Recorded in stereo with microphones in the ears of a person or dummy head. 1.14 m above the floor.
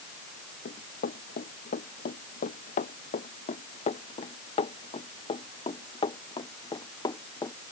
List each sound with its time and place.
0.7 s running footsteps: 50° left (ahead or behind); by 7.6 s 20° left (ahead or behind)